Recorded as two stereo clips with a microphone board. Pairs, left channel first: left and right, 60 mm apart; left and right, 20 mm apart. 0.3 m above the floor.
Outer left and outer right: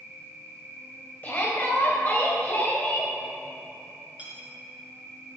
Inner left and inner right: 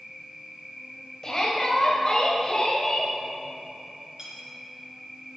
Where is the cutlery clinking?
25° right (ahead or behind), 3 m.